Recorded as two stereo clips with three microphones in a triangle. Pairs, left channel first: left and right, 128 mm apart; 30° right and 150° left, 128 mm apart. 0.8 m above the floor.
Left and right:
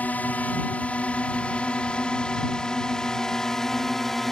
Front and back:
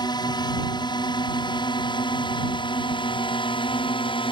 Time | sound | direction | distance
0.0 | a drone | 15° left | ?